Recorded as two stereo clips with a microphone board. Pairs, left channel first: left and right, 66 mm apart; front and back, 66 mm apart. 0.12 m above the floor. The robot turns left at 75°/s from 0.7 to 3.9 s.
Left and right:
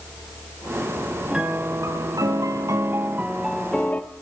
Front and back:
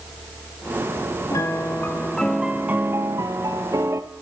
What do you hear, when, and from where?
1.3 s a piano: 15° right, 0.8 m; by 4.0 s 150° left, 0.8 m